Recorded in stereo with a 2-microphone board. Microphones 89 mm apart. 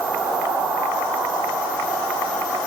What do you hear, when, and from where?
Only background noise.